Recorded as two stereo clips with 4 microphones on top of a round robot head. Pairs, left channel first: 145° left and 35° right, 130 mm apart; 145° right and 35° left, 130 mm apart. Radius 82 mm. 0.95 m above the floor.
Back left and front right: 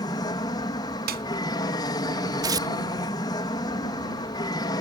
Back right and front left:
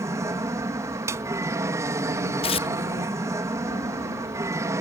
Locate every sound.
0.0 s an aircraft: 95° left
1.1 s a snare drum: 35° right
2.4 s tearing paper: 100° right